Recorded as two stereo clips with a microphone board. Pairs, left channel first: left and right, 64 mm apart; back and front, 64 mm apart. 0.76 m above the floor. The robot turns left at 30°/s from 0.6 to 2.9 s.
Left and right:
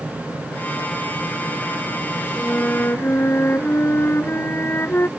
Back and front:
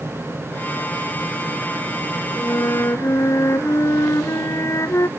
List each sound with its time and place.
2.4 s a flute: 160° left; by 5.1 s 145° left